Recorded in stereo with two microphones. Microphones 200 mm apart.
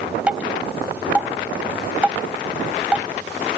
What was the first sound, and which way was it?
Dripping, 5° right (ahead or behind).